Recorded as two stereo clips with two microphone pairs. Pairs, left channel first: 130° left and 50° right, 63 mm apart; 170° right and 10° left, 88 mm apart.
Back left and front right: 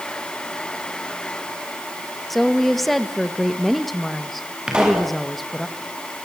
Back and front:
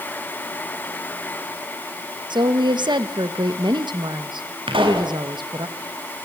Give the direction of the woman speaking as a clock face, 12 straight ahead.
11 o'clock.